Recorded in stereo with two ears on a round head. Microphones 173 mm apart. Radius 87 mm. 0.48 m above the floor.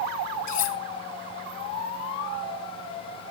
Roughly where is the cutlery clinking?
Left.